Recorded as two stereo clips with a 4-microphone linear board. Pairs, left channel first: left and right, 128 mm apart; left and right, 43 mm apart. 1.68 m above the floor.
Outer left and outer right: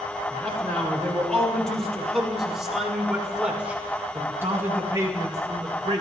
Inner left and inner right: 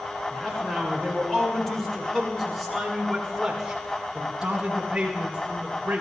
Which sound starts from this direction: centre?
A man speaking, at 0.3 s.